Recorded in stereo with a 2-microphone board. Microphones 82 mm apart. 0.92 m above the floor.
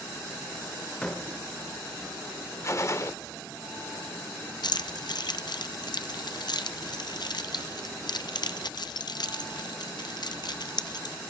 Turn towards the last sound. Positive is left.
turn(degrees=60)  # may be behind; listen again after turning